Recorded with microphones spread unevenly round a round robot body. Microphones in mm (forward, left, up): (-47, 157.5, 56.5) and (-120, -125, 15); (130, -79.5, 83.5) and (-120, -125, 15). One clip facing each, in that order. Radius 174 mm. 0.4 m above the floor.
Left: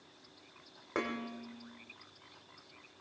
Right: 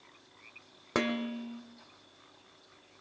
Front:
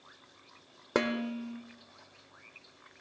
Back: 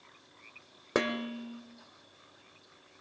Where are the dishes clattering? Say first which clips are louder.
Right 6 dB, front 1 dB; 90° right, 1.3 m.